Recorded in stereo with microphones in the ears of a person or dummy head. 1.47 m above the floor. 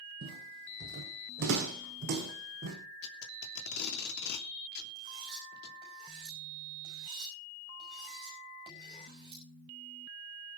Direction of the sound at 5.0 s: 25° right (ahead or behind).